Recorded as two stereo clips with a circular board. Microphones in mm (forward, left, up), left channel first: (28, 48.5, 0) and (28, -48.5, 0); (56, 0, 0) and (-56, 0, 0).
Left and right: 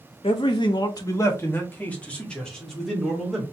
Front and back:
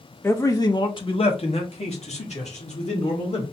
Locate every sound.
0.2 s a man speaking: 70° left, 0.9 m; by 3.4 s straight ahead, 2.5 m